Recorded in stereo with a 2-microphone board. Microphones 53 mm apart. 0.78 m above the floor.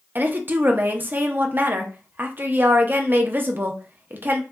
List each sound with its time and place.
0.1 s a woman speaking: 35° right (ahead or behind), 0.5 m